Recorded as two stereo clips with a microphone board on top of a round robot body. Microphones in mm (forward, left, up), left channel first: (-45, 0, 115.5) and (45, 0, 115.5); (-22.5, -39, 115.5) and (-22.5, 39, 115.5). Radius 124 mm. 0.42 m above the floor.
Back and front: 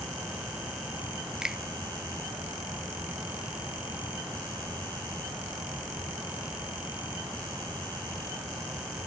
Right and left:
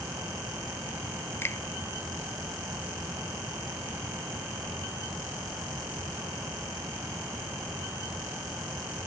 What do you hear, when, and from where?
1.4 s a finger snap: 75° right, 0.7 m